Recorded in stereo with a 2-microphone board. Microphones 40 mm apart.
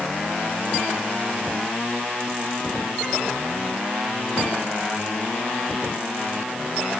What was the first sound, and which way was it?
Only background noise.